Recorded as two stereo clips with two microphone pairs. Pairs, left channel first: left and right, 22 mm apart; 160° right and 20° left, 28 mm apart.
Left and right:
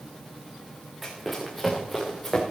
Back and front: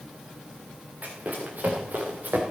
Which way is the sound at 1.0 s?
Straight ahead.